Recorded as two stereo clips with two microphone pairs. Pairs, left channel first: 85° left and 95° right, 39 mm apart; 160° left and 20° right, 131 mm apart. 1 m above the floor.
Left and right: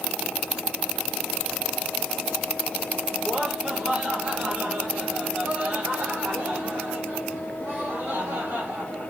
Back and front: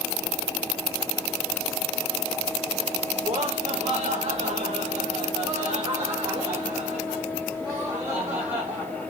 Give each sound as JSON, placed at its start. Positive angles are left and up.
{"t": 3.2, "sound": "laughter", "azimuth_deg": -45, "distance_m": 4.0}